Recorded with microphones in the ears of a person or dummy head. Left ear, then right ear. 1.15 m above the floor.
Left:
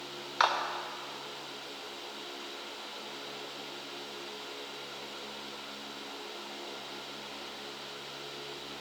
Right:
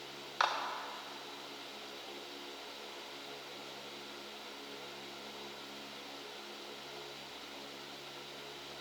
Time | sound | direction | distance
0.4 | a clap | 10° left (ahead or behind) | 0.6 m